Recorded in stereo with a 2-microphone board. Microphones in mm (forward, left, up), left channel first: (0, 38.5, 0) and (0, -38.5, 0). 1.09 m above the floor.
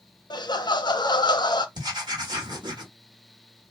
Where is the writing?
65° right (ahead or behind), 1.3 m.